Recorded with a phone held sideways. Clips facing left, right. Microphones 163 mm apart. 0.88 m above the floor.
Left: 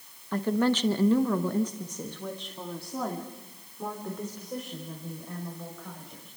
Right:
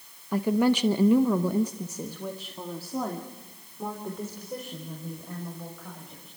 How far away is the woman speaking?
About 1.2 m.